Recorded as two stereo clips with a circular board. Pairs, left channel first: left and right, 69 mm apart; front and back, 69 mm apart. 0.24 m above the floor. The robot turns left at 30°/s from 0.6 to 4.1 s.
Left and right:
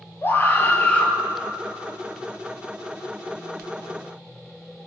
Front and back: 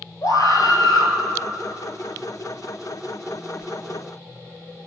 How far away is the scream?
About 4 m.